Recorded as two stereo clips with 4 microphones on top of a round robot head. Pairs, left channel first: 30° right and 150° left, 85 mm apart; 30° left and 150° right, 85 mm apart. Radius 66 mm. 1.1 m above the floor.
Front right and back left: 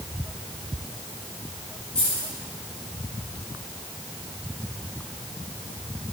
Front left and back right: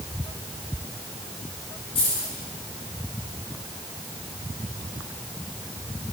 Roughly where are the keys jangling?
Ahead left.